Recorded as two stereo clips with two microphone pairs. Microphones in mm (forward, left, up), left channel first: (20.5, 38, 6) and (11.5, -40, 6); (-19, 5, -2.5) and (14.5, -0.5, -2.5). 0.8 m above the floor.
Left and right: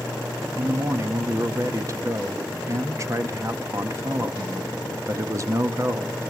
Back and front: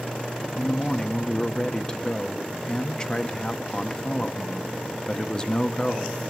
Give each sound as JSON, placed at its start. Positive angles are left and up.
{"t": 0.6, "sound": "a man speaking", "azimuth_deg": -135, "distance_m": 0.8}